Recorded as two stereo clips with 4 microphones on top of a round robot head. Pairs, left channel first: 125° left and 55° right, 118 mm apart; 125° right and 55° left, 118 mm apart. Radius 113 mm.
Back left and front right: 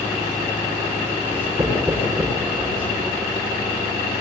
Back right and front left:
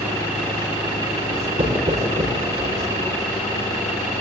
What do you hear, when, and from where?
1.3 s writing: 15° left, 6.5 m